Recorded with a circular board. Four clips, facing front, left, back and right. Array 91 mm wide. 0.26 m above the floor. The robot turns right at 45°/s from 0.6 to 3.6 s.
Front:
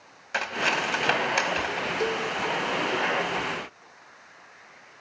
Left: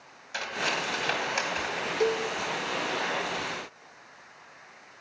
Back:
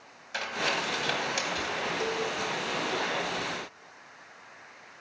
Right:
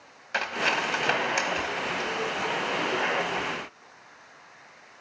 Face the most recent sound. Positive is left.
turn(degrees=140)